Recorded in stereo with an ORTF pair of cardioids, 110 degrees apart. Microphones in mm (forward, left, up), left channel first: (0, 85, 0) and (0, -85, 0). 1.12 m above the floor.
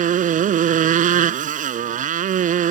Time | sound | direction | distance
0.0 | a motorcycle | 50° right | ?